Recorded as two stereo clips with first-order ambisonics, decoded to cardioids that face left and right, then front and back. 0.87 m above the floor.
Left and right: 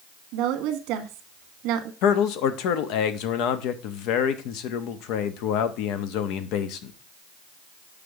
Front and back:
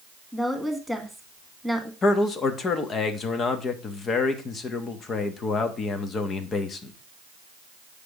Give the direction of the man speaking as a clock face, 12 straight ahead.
10 o'clock.